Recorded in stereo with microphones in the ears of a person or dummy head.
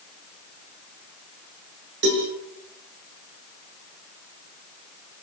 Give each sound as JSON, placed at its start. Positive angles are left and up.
{"t": 2.0, "sound": "a cowbell", "side_deg": -60, "distance_m": 5.5}